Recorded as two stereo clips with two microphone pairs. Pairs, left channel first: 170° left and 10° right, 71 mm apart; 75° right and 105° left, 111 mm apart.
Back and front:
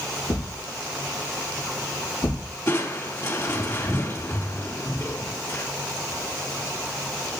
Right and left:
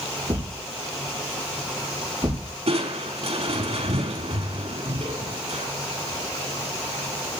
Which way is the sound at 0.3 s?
170° left.